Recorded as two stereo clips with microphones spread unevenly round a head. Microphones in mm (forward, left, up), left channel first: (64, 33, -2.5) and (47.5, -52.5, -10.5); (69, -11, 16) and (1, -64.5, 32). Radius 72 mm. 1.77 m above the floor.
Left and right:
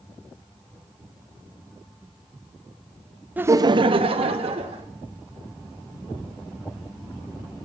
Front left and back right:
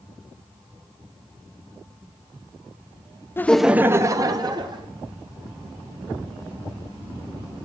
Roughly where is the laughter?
Ahead right.